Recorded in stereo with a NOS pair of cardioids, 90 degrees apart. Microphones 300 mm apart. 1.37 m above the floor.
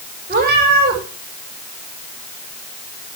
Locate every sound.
0.3 s a cat meowing: 35° right, 5.5 m